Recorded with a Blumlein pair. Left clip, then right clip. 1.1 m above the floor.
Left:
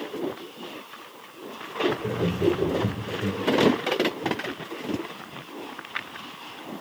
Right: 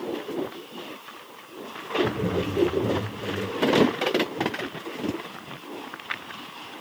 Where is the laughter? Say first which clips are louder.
Right 1 dB; straight ahead, 1.3 m; by 3.4 s 40° left, 1.0 m.